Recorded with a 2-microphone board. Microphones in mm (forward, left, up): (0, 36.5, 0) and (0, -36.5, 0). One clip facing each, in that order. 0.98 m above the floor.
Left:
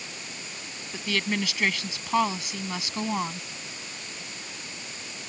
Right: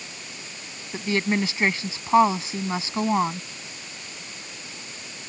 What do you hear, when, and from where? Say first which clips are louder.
0.9 s a woman speaking: right 5 dB; 30° right (ahead or behind)